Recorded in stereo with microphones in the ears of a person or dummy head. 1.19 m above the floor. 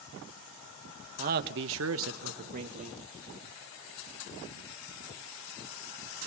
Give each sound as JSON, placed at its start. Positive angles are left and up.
{"t": 1.2, "sound": "a man speaking", "side_deg": -40, "distance_m": 1.3}